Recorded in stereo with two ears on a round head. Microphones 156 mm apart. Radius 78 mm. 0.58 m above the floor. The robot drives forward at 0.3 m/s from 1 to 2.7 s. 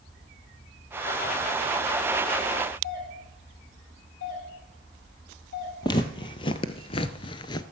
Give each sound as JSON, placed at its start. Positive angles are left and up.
{"t": 2.8, "sound": "a doorbell", "side_deg": 60, "distance_m": 4.0}
{"t": 5.8, "sound": "footsteps", "side_deg": 25, "distance_m": 1.1}